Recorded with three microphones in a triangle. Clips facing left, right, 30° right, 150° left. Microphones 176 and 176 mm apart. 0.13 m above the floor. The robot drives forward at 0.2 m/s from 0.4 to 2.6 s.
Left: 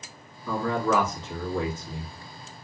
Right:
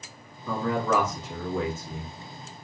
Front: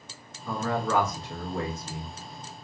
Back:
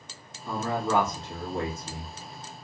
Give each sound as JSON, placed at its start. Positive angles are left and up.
{"t": 0.5, "sound": "a man speaking", "azimuth_deg": -165, "distance_m": 1.2}